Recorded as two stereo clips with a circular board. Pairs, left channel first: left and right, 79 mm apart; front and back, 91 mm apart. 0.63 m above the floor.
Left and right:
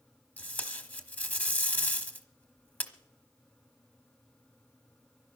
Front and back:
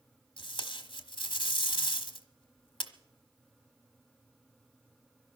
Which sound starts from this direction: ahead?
Tape being pulled, at 0.4 s.